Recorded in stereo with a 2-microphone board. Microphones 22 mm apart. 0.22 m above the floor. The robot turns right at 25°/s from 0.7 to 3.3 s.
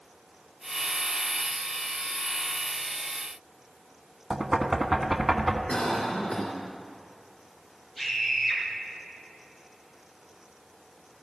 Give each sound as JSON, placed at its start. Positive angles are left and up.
{"t": 4.3, "sound": "knocking", "side_deg": -25, "distance_m": 1.3}
{"t": 5.7, "sound": "a cough", "side_deg": 50, "distance_m": 3.0}
{"t": 8.0, "sound": "a scream", "side_deg": 0, "distance_m": 6.0}